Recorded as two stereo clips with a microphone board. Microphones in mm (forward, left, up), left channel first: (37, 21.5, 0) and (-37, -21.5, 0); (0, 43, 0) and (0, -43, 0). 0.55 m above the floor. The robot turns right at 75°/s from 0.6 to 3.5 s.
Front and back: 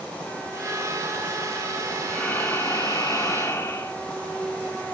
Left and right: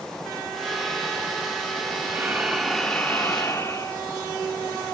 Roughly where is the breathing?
Ahead right.